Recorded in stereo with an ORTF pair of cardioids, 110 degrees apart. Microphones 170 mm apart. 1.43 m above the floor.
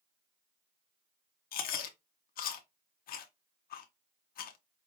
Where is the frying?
I don't hear frying.